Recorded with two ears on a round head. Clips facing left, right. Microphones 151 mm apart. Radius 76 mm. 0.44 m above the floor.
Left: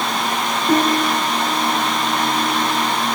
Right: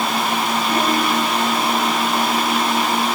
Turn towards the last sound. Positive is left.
turn(degrees=30)  # may be behind; listen again after turning